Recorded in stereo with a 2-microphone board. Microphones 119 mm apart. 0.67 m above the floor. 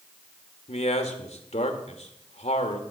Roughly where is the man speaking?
Left.